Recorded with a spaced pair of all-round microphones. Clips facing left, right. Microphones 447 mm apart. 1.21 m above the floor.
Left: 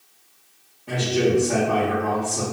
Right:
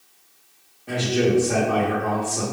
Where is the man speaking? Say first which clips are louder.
Even; 10° left (ahead or behind), 0.9 m.